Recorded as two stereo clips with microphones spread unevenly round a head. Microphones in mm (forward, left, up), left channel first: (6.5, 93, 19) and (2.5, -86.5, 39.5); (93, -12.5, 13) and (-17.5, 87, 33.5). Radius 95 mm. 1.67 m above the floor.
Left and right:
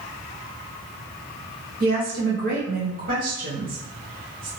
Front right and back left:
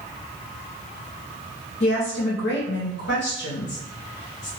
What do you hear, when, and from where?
1.8 s a woman speaking: 50° right, 1.2 m